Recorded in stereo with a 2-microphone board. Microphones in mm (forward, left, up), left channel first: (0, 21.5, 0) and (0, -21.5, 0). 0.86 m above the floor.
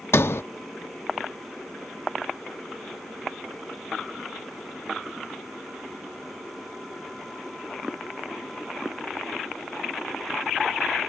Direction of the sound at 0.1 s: 75° left (ahead or behind).